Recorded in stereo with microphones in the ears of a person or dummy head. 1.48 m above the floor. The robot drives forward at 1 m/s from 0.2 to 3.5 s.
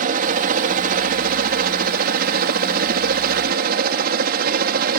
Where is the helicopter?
50° right (ahead or behind).